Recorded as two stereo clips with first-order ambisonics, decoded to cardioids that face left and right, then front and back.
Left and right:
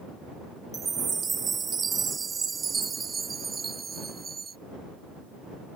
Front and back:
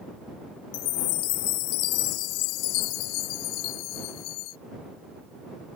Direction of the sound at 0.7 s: 20° right.